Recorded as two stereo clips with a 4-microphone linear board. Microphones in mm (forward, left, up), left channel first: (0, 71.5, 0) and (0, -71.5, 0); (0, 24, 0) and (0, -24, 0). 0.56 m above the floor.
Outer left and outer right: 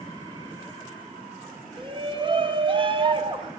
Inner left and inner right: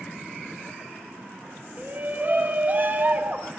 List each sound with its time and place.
1.8 s a shout: 35° right (ahead or behind), 0.8 m